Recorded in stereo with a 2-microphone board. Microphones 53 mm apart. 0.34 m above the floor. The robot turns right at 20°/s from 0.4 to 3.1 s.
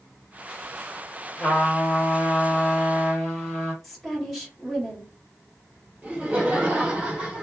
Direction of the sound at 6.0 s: 20° right (ahead or behind).